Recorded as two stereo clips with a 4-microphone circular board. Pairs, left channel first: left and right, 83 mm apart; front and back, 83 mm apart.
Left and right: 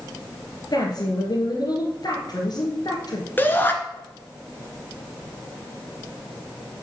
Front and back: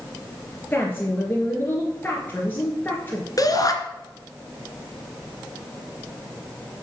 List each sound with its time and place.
0.7 s a woman speaking: 65° left, 2.5 m
3.4 s a shout: 30° left, 2.0 m